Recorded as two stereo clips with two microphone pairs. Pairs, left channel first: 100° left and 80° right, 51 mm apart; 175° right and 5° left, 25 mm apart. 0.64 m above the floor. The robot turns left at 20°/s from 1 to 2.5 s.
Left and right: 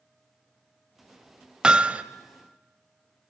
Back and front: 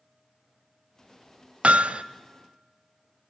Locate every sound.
1.6 s hammering: 10° right, 0.7 m; by 2.0 s 20° right, 0.7 m